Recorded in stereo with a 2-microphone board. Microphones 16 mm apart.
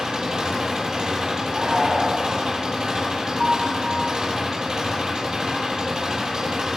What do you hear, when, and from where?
0.0 s an engine running: 50° right (ahead or behind), 9.5 m
1.5 s a shout: 75° right (ahead or behind), 7 m
3.4 s a piano: 45° right (ahead or behind), 3.5 m